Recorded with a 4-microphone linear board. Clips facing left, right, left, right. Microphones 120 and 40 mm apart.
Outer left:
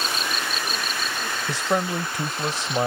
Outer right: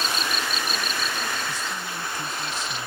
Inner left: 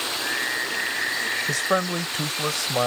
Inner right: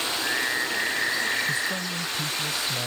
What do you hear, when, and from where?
1.5 s a man speaking: 80° left